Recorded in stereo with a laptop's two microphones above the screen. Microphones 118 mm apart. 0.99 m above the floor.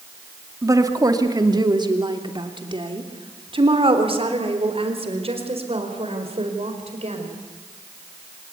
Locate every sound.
0.6 s a woman speaking: 25° right (ahead or behind), 2 m; by 7.3 s 60° right (ahead or behind), 5 m